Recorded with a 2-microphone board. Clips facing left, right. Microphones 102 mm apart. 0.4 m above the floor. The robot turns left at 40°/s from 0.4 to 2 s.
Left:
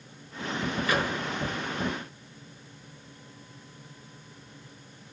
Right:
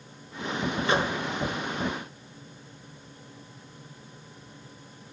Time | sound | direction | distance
0.9 | a microwave | 25° right (ahead or behind) | 1.1 m